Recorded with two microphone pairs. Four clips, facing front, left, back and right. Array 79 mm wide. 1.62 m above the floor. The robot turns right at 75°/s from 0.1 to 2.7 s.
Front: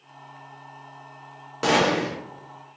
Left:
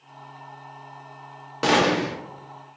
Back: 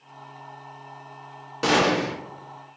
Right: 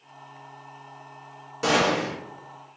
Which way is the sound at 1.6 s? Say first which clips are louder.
Left 2 dB, even; 85° left.